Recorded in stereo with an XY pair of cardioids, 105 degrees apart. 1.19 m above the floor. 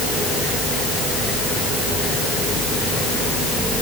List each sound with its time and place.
Only background noise.